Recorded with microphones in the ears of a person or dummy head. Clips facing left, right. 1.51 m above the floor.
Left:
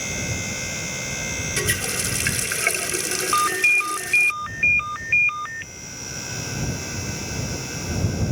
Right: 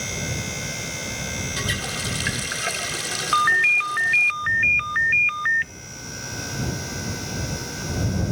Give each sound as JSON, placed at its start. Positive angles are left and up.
{"t": 1.6, "sound": "a running tap", "side_deg": 40}
{"t": 3.3, "sound": "a ringtone", "side_deg": -20}